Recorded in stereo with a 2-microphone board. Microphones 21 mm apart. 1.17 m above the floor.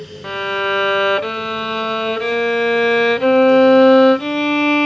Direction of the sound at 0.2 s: 20° left (ahead or behind).